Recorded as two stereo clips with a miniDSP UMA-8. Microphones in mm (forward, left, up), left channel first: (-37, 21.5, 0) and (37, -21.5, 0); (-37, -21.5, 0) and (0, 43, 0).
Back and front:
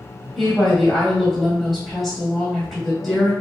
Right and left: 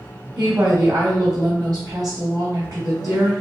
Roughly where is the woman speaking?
Ahead left.